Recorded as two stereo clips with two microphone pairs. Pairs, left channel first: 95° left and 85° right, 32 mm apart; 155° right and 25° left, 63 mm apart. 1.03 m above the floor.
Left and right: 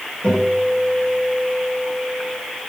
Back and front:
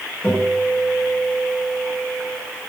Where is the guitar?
145° left, 4 m.